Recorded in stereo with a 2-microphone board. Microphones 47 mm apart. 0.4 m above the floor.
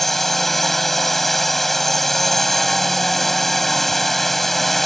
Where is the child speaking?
I don't hear a child speaking.